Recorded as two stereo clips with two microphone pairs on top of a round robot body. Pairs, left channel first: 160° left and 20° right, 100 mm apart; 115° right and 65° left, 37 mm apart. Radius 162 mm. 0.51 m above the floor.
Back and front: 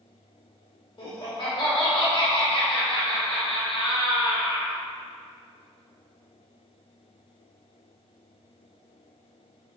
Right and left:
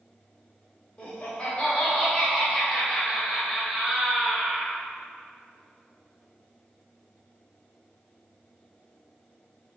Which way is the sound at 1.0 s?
Straight behind.